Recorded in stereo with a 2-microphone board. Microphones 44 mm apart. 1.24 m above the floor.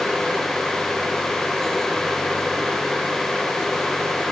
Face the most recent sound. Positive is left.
No sound to turn to.